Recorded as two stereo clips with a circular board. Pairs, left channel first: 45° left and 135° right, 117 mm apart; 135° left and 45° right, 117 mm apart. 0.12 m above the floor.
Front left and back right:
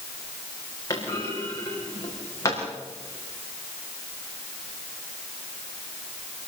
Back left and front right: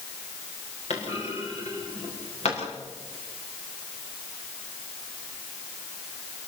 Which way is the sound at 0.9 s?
110° left.